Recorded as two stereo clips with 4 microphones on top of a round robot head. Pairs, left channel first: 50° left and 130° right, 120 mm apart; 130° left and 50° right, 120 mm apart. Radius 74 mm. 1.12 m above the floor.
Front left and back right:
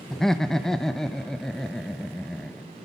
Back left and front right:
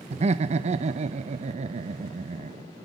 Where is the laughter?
35° right, 0.8 m.